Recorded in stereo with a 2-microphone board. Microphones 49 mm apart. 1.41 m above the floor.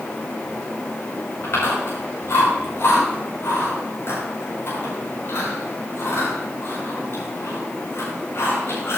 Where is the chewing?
60° left (ahead or behind), 7 m.